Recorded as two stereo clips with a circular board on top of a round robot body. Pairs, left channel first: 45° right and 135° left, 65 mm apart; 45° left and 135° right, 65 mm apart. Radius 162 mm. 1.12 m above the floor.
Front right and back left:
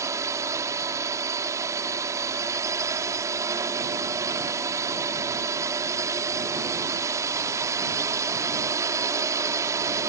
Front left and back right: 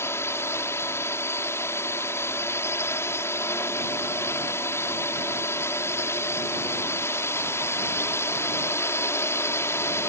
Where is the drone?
95° left.